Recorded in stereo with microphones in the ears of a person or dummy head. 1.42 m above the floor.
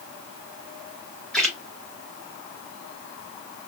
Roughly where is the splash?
Centre.